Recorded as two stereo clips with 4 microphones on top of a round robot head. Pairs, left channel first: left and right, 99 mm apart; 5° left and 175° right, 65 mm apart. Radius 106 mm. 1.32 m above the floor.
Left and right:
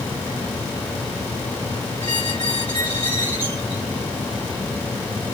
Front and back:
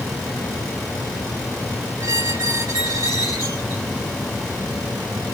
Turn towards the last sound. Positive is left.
turn(degrees=-130)